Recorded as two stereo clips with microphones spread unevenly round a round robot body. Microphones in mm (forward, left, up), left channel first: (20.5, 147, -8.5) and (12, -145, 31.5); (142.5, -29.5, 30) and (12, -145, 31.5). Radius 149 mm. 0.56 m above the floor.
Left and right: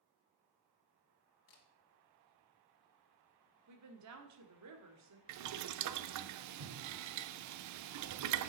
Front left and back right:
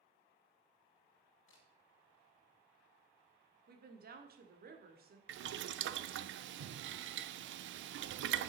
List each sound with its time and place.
1.5 s a camera shutter: 65° left, 2.5 m
3.7 s a woman speaking: 125° right, 1.9 m
5.3 s boiling: 130° right, 0.6 m